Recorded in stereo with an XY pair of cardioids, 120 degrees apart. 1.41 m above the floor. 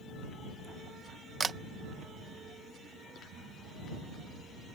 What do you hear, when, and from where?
1.4 s a camera shutter: 30° right